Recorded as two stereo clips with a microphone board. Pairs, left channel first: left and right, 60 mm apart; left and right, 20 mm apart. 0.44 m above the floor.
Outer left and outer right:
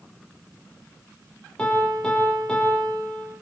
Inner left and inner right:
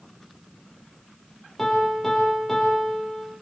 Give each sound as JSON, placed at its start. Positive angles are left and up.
{"t": 1.6, "sound": "a piano", "side_deg": 15, "distance_m": 7.5}